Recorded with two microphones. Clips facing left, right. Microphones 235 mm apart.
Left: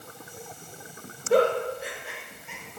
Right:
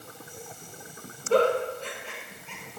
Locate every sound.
1.3 s a giggle: 15° left (ahead or behind), 1.0 m